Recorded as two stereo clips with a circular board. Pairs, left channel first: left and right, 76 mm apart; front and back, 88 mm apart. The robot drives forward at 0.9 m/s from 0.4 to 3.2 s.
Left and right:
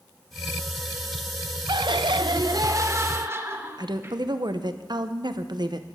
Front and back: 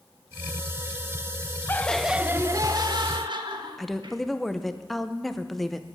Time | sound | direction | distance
1.7 | laughter | 65° right | 0.7 m
3.8 | a woman speaking | 85° right | 0.8 m